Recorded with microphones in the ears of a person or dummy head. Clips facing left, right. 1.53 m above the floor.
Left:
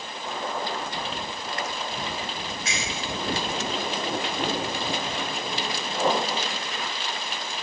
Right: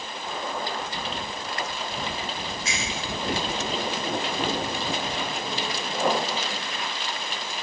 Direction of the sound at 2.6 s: 40° right (ahead or behind).